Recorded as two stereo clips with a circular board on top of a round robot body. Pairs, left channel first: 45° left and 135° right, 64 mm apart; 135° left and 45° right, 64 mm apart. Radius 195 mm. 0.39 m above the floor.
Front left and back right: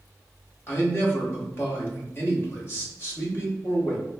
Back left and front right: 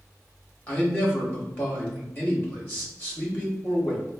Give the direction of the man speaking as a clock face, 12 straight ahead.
9 o'clock.